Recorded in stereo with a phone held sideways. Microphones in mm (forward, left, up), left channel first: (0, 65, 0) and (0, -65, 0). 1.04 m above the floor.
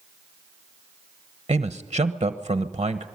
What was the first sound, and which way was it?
A man speaking, 40° right (ahead or behind).